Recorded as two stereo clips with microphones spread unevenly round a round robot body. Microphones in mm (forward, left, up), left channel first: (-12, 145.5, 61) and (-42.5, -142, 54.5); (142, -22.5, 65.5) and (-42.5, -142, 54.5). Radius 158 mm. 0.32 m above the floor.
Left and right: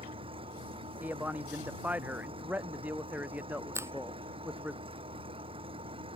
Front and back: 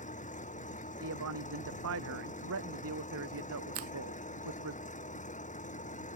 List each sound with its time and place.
0.0 s an engine running: 25° right
1.0 s a man speaking: straight behind
3.8 s a finger snap: 175° right